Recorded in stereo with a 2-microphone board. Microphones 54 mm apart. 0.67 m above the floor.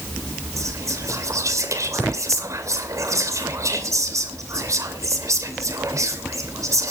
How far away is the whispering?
About 2.5 m.